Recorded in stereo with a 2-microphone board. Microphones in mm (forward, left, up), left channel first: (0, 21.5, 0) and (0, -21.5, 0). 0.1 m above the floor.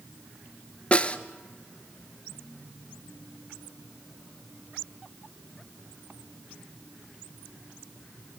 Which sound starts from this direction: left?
A snare drum, at 0.9 s.